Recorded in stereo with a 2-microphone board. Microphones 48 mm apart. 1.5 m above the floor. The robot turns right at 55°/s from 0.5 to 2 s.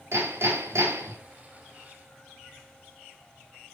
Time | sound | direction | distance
0.1 | hammering | 115° right | 4.5 m